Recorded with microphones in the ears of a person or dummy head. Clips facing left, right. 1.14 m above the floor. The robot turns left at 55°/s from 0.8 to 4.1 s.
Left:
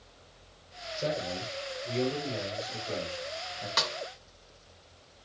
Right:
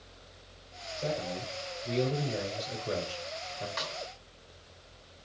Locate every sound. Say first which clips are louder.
1.0 s a man speaking: left 1 dB; 40° left, 5.5 m; by 3.7 s 110° right, 5.5 m
3.8 s a snare drum: left 4 dB; 70° left (ahead or behind), 1.7 m; by 4.0 s 65° left (ahead or behind), 1.7 m